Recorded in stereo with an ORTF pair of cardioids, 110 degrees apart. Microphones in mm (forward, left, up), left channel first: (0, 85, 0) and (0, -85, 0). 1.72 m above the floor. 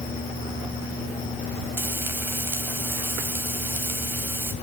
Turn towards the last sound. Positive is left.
turn(degrees=-15)